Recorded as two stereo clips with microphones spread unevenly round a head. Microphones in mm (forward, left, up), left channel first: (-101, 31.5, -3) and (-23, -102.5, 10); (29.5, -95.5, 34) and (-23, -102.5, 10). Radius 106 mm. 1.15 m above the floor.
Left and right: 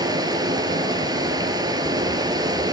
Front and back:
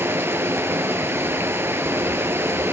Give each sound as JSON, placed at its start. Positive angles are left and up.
{"t": 0.0, "sound": "running water", "azimuth_deg": -120, "distance_m": 3.5}